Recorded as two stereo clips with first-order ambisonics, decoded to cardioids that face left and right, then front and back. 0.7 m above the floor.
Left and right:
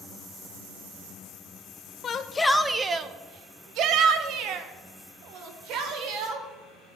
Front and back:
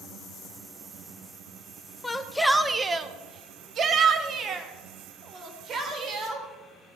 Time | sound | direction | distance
2.0 | a shout | 65° left | 0.5 m